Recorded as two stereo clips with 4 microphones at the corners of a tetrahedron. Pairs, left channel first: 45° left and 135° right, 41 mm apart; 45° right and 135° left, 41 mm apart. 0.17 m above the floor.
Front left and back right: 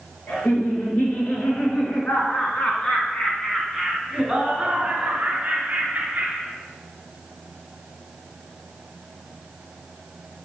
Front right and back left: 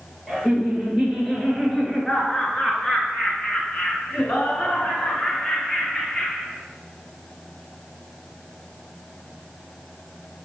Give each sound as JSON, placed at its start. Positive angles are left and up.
{"t": 0.3, "sound": "laughter", "azimuth_deg": 40, "distance_m": 3.5}